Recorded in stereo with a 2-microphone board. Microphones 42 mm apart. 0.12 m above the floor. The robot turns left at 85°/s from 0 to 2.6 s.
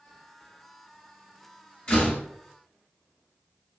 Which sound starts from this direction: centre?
A door slam, at 1.9 s.